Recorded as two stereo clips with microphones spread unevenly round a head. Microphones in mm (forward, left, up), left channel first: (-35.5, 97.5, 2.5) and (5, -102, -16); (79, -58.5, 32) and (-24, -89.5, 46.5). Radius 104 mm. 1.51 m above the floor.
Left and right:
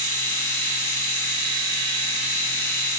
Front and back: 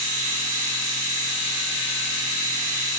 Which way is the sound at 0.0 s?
Straight behind.